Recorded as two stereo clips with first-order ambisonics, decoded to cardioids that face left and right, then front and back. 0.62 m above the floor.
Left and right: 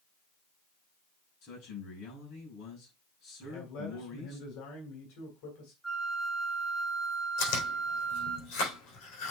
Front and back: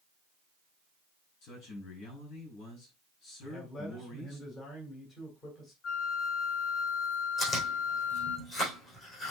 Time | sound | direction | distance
1.4 | a man speaking | 35° left | 5.5 m
3.4 | a man speaking | 70° left | 3 m
5.8 | a flute | straight ahead | 1.1 m
7.4 | chewing | 65° left | 5 m